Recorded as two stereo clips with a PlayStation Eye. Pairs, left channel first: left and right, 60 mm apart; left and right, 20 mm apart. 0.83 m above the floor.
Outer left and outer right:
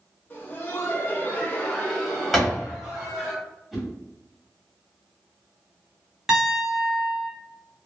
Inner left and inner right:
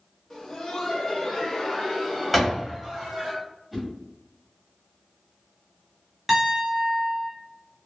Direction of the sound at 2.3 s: Centre (ahead or behind).